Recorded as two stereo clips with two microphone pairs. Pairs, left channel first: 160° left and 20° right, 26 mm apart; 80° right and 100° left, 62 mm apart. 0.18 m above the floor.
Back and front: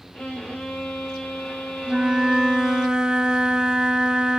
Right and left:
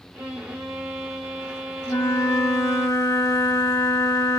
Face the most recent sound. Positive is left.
turn(degrees=-70)